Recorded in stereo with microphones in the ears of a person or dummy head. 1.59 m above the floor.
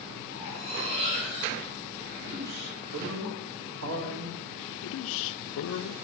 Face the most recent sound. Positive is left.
turn(degrees=75)  # may be behind; listen again after turning